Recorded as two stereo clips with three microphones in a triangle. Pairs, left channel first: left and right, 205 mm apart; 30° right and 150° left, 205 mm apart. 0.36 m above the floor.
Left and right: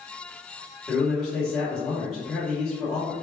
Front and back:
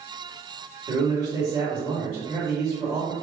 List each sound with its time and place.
0.9 s a man speaking: 170° left, 1.5 m